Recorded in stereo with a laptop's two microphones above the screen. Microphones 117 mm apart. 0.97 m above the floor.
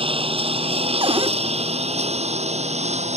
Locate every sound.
0.0 s a lawn mower: 50° right (ahead or behind); by 3.2 s 75° right (ahead or behind)
1.0 s a cupboard door: 50° right (ahead or behind)